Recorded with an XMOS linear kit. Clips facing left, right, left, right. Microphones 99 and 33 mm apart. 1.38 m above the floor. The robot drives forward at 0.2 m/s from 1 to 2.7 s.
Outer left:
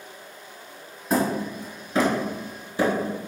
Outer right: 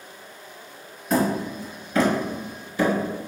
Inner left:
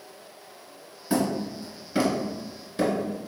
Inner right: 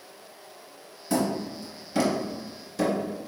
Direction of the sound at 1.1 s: 25° left (ahead or behind).